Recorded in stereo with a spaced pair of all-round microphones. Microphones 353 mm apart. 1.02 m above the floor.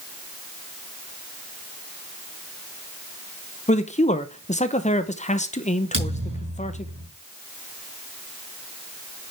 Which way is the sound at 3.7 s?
20° left (ahead or behind).